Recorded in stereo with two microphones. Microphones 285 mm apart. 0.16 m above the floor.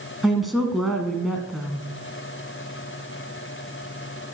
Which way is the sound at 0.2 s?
Centre (ahead or behind).